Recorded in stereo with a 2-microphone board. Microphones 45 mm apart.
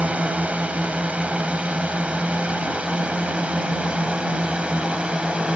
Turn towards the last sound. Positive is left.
turn(degrees=-25)  # may be behind; listen again after turning